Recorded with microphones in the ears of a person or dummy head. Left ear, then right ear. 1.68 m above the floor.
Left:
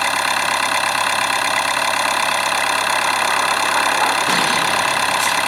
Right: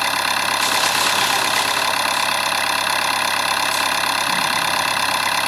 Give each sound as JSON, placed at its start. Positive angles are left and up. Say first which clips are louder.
{"t": 0.0, "sound": "an engine running", "louder": "left 1 dB", "side_deg": 15}